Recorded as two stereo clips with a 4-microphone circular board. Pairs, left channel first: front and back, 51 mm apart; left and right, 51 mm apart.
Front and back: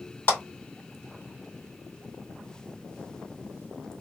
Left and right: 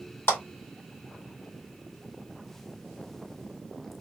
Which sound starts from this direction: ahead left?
A clap, at 0.3 s.